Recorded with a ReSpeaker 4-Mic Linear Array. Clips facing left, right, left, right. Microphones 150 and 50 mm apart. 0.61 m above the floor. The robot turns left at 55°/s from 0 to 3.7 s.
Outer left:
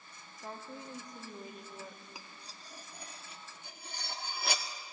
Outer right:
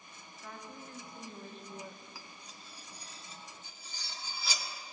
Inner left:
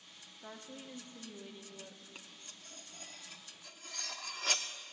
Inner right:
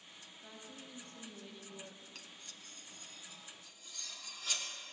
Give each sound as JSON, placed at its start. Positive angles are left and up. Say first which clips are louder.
{"t": 0.4, "sound": "a woman speaking", "louder": "outer left 3 dB, inner left 5 dB", "side_deg": 30, "distance_m": 0.8}
{"t": 2.1, "sound": "cutlery clinking", "louder": "even, even", "side_deg": 20, "distance_m": 0.5}